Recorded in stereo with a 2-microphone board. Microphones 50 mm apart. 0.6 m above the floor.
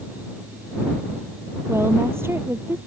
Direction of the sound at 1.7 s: 60° right (ahead or behind).